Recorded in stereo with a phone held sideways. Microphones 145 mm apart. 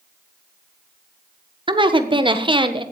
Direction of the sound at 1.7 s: 30° right (ahead or behind).